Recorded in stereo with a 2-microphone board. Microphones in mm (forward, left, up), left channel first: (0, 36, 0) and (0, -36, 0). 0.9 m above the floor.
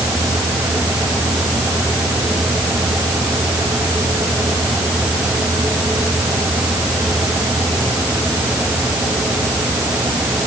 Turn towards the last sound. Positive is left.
No sound to turn to.